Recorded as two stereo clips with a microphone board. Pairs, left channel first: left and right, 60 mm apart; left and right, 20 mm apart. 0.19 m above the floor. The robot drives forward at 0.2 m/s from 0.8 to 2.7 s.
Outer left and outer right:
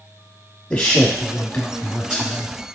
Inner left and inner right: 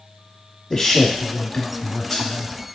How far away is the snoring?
I don't hear snoring.